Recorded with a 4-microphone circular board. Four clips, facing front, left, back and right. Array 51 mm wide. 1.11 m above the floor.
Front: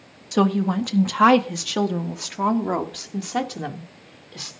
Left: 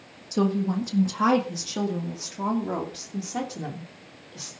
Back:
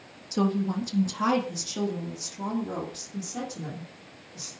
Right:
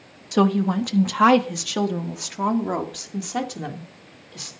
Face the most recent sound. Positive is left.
turn(degrees=-15)